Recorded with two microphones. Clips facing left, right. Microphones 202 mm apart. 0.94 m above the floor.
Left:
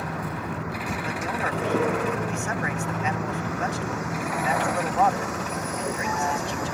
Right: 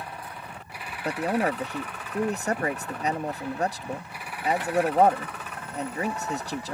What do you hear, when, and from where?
0.0 s a vehicle: 85° left
1.1 s a man speaking: 35° right (ahead or behind)